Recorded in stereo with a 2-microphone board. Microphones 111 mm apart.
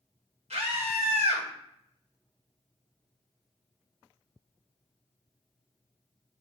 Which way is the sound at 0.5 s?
80° right.